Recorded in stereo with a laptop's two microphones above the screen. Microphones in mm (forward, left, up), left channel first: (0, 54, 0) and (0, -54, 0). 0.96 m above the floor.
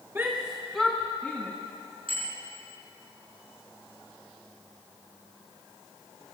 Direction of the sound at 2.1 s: 60° right (ahead or behind).